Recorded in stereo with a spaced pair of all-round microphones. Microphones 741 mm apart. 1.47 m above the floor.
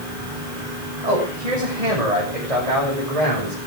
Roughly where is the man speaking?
Right.